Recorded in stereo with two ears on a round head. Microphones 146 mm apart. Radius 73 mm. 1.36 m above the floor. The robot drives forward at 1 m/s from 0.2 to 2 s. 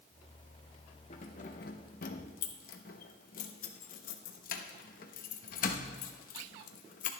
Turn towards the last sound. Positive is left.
turn(degrees=55)  # may be behind; listen again after turning